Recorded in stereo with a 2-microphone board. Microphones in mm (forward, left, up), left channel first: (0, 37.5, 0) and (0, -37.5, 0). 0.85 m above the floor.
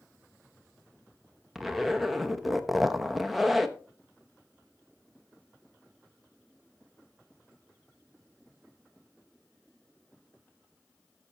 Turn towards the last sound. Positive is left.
turn(degrees=0)  # may be behind; listen again after turning